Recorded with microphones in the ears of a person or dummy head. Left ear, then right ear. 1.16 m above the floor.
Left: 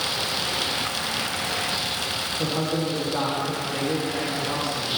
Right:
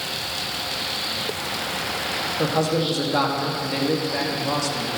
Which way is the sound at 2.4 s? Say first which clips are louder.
Right 4 dB; 80° right.